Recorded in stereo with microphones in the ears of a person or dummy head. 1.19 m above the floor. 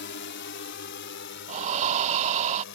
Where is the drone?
50° left (ahead or behind).